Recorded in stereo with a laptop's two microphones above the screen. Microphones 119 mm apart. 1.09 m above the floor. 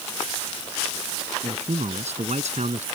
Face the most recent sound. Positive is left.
turn(degrees=-70)  # may be behind; listen again after turning